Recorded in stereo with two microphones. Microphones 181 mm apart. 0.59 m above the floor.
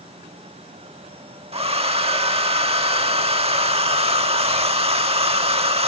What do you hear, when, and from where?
1.5 s a hair dryer: 35° right (ahead or behind), 0.8 m